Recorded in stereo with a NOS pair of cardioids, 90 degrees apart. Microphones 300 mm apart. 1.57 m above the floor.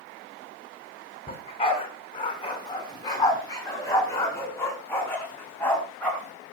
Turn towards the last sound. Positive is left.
turn(degrees=5)